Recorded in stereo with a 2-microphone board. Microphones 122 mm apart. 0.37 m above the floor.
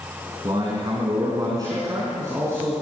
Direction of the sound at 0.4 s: 40° right (ahead or behind).